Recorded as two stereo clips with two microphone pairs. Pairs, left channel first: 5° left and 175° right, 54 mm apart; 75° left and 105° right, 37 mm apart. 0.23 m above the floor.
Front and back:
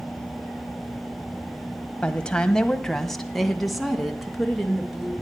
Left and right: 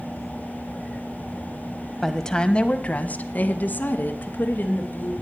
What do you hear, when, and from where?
2.0 s a woman speaking: 5° right, 1.0 m; by 5.1 s 100° left, 3 m